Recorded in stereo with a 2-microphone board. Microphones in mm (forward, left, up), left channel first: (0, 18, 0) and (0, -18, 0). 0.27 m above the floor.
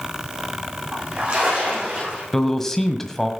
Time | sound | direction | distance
0.9 | a splash | 35° right (ahead or behind) | 9.5 m
2.3 | a man speaking | 10° left (ahead or behind) | 1.3 m